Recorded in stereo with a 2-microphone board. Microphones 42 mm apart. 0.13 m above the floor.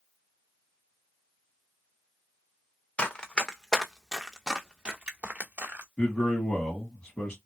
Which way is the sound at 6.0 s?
20° left (ahead or behind).